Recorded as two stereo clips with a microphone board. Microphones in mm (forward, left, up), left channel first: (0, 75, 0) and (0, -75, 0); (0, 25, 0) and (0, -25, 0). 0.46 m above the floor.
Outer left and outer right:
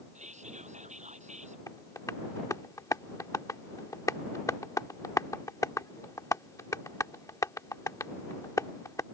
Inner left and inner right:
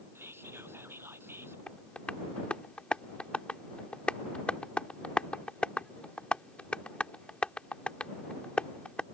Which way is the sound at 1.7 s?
20° left (ahead or behind).